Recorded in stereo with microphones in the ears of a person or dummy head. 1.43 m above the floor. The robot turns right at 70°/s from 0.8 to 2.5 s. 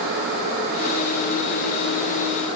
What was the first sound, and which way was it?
Only background noise.